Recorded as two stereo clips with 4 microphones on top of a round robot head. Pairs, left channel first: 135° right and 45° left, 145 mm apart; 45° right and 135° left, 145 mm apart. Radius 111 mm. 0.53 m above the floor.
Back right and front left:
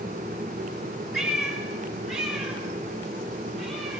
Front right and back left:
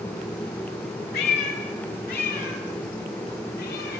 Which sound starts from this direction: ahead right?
A cat meowing, at 1.1 s.